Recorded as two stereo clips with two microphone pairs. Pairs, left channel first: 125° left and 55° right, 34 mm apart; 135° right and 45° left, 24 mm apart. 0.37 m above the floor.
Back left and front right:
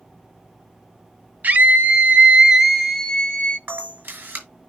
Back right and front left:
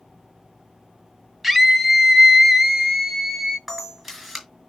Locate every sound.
1.4 s a scream: 40° right, 1.6 m; by 3.6 s 120° left, 1.1 m
3.7 s a camera shutter: 45° right, 4.5 m